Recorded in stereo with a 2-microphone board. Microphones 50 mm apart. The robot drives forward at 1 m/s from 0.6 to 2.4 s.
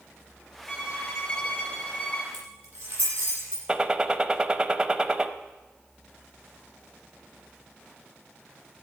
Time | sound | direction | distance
0.7 | a violin | 20° left (ahead or behind) | 3 m
2.3 | keys jangling | 35° right (ahead or behind) | 7.5 m
3.7 | a gunshot | 15° right (ahead or behind) | 0.7 m